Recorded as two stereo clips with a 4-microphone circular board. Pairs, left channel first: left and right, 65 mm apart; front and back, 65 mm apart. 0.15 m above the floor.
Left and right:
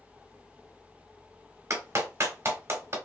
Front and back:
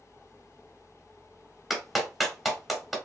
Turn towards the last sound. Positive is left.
turn(degrees=-95)